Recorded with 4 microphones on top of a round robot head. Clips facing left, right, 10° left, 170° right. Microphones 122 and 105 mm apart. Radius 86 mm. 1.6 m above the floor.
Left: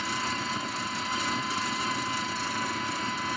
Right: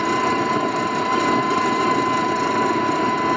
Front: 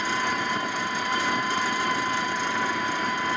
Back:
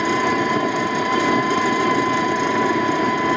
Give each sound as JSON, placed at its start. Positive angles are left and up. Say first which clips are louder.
{"t": 0.0, "sound": "an engine running", "louder": "right 14 dB, back 8 dB", "azimuth_deg": -140}